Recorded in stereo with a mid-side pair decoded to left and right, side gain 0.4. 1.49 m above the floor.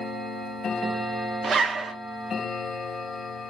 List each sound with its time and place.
1.4 s a zipper: 60° right, 0.7 m